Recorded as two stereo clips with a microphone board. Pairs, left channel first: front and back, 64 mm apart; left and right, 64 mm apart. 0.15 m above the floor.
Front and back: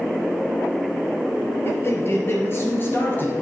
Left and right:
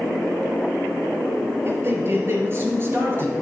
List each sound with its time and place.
1.6 s a man speaking: 45° right, 3.5 m; by 3.3 s 50° right, 2.5 m